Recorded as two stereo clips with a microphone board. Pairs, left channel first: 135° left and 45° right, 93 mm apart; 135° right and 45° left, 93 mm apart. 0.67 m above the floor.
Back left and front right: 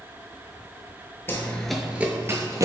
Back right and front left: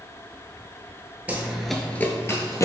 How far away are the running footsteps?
About 0.7 m.